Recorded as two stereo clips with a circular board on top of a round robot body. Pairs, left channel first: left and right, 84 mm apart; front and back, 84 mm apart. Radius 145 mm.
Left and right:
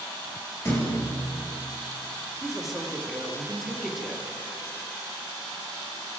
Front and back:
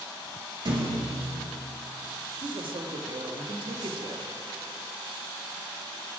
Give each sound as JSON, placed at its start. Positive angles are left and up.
{"t": 0.7, "sound": "a thud", "azimuth_deg": 150, "distance_m": 4.5}
{"t": 2.4, "sound": "a man speaking", "azimuth_deg": 180, "distance_m": 1.9}